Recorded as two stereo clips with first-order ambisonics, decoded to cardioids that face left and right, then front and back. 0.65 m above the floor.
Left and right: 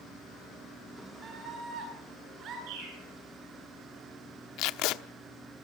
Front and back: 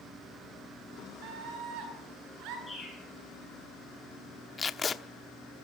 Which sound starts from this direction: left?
Tape being pulled, at 4.6 s.